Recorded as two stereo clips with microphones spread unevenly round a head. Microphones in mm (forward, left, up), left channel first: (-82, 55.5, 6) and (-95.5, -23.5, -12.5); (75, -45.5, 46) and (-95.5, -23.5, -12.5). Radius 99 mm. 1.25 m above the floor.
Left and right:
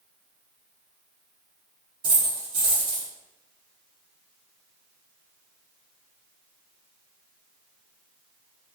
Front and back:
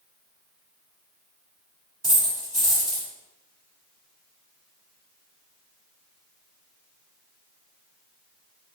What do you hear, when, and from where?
2.0 s a dropped coin: 85° right, 1.6 m